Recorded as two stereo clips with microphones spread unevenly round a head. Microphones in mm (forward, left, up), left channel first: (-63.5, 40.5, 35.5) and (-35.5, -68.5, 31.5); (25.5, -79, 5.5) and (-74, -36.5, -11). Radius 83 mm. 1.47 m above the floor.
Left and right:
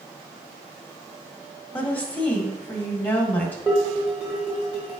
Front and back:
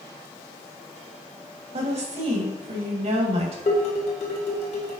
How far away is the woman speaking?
About 1.9 m.